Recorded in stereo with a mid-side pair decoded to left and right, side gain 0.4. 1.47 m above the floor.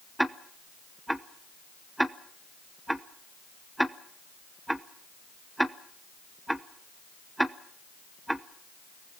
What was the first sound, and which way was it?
Ticking, 5° right.